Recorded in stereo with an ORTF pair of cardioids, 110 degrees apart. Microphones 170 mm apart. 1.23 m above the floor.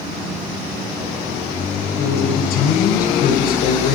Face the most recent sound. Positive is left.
turn(degrees=60)